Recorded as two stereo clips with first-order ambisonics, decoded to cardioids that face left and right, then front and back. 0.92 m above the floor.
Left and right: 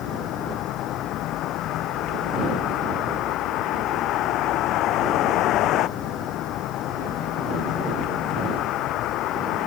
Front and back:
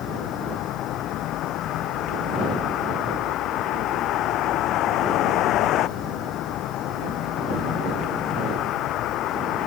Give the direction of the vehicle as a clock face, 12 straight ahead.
11 o'clock.